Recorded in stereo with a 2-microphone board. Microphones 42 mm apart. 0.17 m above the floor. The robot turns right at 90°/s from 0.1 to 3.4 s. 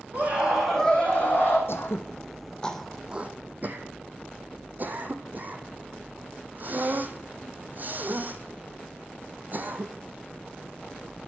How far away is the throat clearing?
About 1.4 m.